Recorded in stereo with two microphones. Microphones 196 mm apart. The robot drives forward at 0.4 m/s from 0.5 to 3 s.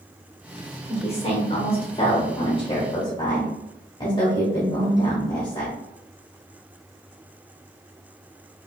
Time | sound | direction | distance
0.9 | a woman speaking | 30° left (ahead or behind) | 0.9 m